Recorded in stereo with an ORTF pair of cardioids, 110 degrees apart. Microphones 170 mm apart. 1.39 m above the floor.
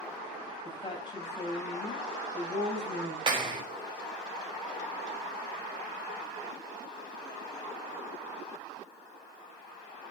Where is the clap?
30° right, 3.5 m.